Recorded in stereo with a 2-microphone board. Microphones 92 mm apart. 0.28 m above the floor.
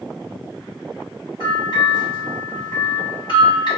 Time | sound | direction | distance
1.4 | a bell | 55° left (ahead or behind) | 1.6 m